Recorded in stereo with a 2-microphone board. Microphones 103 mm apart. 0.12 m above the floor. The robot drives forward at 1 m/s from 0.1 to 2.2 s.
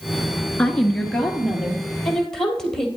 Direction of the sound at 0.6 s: 15° left (ahead or behind).